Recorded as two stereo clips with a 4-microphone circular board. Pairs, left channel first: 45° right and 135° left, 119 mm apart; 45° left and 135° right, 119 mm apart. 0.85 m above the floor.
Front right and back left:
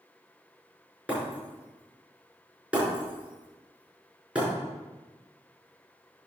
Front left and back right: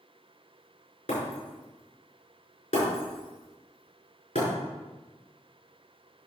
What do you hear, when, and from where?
1.1 s breaking glass: 55° left, 5.5 m